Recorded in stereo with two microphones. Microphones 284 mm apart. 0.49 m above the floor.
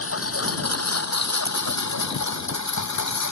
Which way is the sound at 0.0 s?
50° left (ahead or behind).